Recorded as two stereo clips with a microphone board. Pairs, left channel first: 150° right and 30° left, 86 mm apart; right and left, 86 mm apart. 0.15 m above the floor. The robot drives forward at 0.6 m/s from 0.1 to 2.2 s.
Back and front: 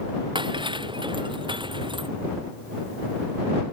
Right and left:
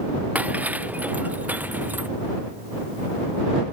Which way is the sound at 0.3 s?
20° left.